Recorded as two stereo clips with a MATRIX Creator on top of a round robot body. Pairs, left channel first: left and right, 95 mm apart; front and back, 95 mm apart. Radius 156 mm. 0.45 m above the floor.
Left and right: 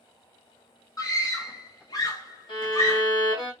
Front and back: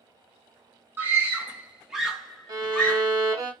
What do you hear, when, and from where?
1.0 s a scream: 125° left, 1.7 m; by 3.1 s 60° left, 1.6 m
2.5 s a violin: 130° left, 1.4 m